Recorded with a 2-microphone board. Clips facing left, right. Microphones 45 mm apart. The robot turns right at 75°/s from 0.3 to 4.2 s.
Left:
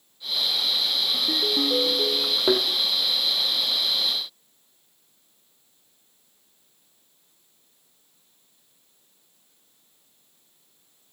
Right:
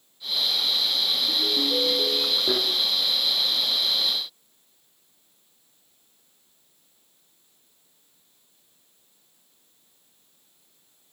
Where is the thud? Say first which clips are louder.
Left 6 dB; 60° left (ahead or behind), 1.9 m; by 2.6 s 50° left (ahead or behind), 1.9 m.